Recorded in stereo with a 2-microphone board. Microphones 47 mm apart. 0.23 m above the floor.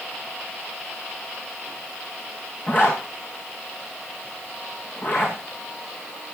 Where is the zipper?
50° left (ahead or behind), 7 m.